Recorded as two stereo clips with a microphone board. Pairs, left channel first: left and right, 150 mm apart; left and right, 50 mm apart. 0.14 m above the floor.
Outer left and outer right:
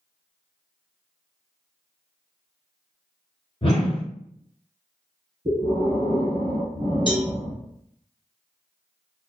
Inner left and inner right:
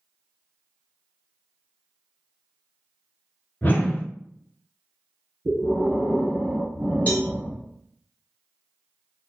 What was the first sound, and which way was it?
A whoosh, 40° left (ahead or behind).